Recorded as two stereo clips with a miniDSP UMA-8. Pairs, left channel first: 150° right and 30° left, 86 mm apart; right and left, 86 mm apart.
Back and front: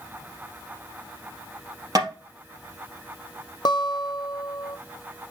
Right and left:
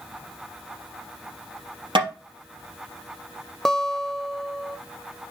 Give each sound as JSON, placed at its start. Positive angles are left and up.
{"t": 1.9, "sound": "tapping", "azimuth_deg": 75, "distance_m": 3.5}
{"t": 3.6, "sound": "a guitar", "azimuth_deg": -175, "distance_m": 0.6}